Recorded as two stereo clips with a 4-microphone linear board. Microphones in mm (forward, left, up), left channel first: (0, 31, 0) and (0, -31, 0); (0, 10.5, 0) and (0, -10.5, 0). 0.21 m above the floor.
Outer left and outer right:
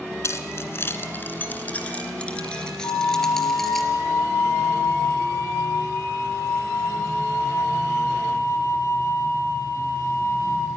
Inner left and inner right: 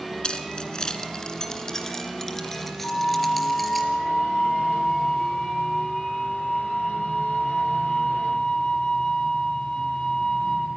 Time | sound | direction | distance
0.2 | keys jangling | 50° left (ahead or behind) | 1.8 m
2.8 | a flute | 55° left (ahead or behind) | 2 m